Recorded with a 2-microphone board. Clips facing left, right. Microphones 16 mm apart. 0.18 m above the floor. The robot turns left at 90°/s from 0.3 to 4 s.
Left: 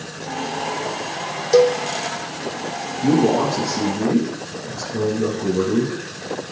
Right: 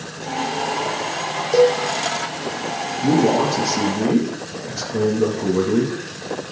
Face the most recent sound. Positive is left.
turn(degrees=-55)